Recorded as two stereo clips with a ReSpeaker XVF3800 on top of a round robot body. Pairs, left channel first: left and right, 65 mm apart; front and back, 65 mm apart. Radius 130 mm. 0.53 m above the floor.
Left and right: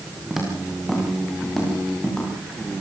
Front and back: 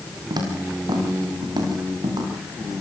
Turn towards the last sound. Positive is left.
turn(degrees=170)